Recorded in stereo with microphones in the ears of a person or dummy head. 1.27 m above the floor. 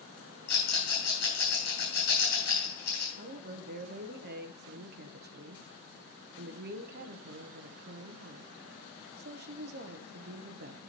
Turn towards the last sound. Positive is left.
turn(degrees=-55)  # may be behind; listen again after turning